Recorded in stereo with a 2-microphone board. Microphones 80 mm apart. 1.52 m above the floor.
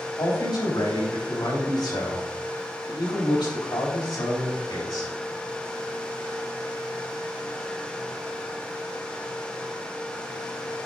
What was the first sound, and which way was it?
A man speaking, 70° left (ahead or behind).